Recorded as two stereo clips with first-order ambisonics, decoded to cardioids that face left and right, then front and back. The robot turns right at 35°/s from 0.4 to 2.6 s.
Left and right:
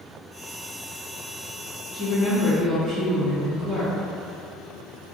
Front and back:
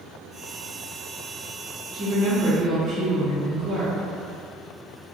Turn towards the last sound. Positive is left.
turn(degrees=-175)